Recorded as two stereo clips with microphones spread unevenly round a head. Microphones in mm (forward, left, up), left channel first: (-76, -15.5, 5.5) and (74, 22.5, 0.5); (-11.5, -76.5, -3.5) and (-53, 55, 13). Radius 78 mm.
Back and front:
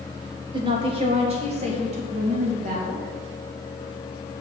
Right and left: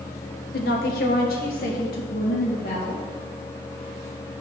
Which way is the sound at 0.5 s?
45° right.